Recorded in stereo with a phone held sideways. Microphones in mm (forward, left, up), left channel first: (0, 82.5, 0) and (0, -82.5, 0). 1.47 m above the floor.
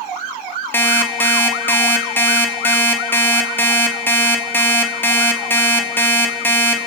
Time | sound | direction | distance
0.7 | an alarm clock | 10° left (ahead or behind) | 2 m